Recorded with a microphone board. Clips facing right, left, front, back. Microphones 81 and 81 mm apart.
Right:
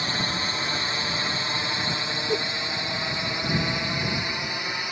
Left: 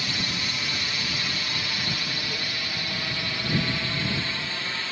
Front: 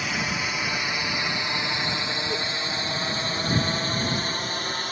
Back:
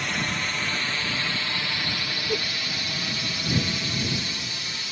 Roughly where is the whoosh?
Right.